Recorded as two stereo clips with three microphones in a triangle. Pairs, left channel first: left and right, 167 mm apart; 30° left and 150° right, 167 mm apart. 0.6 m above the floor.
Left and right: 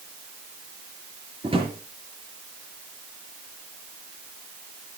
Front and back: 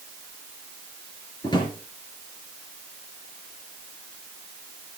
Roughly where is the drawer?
Ahead right.